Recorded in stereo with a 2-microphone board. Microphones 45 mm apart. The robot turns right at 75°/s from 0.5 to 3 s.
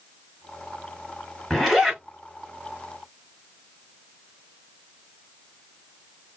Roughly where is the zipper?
Behind.